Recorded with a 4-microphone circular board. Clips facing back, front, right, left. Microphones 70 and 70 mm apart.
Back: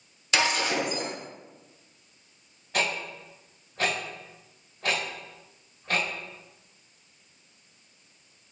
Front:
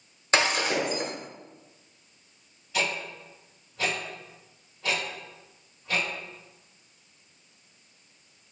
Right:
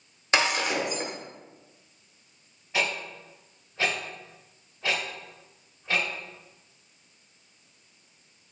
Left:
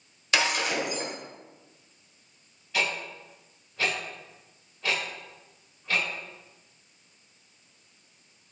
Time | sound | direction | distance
0.3 | breaking glass | 40° right | 1.3 m
2.7 | ticking | 155° right | 1.9 m